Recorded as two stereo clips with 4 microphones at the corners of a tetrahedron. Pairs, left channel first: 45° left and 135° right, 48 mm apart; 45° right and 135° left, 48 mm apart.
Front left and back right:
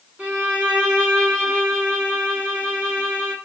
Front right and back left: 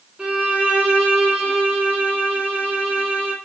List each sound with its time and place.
0.2 s a violin: 160° right, 1.3 m